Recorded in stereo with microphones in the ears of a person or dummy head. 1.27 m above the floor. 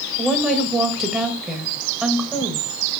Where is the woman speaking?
5° right (ahead or behind), 1.2 m.